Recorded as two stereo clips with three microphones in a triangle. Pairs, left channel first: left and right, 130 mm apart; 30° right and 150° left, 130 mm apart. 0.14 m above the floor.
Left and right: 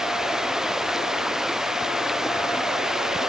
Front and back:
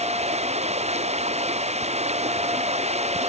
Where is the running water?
175° right.